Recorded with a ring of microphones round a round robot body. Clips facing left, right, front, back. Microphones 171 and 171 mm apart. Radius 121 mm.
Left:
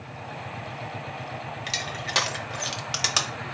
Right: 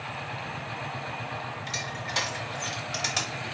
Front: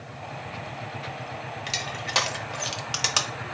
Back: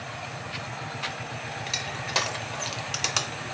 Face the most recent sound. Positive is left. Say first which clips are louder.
# left 2 dB, front 1 dB
turn(degrees=95)